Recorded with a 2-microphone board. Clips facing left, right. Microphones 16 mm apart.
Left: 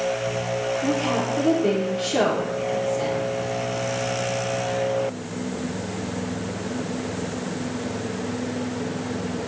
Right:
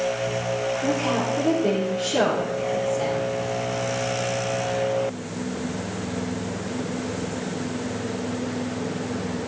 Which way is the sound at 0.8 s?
45° left (ahead or behind).